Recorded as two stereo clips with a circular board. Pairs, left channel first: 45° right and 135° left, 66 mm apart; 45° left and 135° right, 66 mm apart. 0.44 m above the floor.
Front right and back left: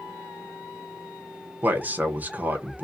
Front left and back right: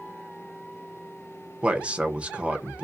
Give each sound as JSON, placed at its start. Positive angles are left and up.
{"t": 1.6, "sound": "a man speaking", "azimuth_deg": 170, "distance_m": 0.8}